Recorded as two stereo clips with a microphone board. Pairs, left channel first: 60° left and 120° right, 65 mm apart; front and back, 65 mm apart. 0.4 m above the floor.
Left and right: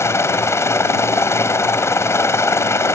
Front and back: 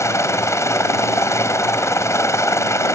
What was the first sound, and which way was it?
A helicopter, 25° left.